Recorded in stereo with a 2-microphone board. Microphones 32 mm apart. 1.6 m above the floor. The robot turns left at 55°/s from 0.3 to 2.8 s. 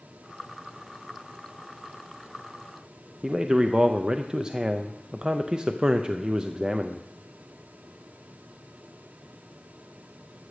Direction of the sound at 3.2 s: 25° right (ahead or behind).